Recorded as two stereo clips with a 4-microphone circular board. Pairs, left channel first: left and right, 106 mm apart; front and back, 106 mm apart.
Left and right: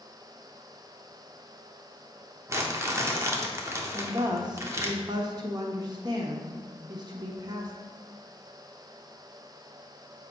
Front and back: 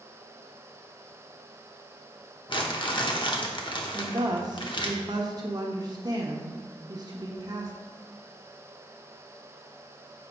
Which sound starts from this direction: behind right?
A woman speaking, at 3.9 s.